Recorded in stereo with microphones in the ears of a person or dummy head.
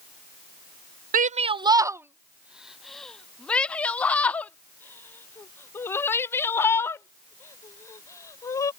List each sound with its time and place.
1.1 s a shout: 45° right (ahead or behind); by 8.7 s 20° left (ahead or behind)